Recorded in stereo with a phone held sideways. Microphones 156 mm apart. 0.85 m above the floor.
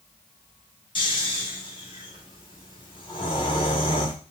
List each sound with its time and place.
0.9 s snoring: 35° left (ahead or behind), 1.4 m